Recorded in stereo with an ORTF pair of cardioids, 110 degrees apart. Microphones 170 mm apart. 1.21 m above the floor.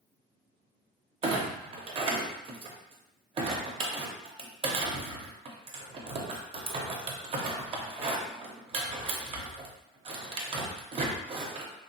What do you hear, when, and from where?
1.2 s a clunk: 35° right, 0.6 m